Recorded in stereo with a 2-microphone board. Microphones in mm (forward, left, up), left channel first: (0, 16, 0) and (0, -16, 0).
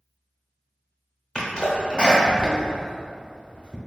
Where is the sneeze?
25° left (ahead or behind), 0.8 m.